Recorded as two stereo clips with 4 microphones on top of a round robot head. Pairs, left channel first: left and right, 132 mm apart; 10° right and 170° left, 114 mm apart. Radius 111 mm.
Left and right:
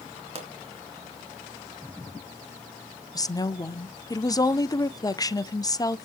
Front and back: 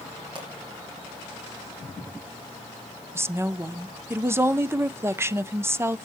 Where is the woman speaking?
120° left, 0.8 m.